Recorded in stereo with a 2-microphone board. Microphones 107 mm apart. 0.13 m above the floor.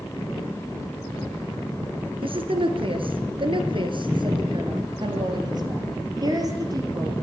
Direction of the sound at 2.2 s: 55° right (ahead or behind).